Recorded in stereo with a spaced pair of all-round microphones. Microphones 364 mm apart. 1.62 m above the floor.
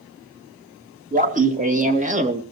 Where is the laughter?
20° right (ahead or behind), 2.5 m.